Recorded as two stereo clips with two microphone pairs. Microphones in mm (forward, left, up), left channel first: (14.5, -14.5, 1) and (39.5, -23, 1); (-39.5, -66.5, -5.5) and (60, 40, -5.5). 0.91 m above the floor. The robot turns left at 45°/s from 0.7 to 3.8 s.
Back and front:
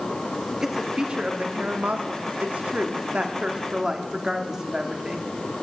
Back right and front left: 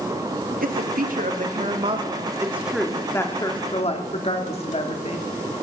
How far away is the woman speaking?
About 1.9 m.